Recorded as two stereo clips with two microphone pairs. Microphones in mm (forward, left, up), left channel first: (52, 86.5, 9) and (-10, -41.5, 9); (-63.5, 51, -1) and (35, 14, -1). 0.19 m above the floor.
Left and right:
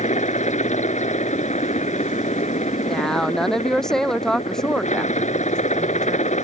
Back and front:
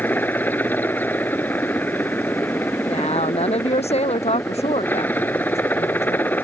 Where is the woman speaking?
150° left.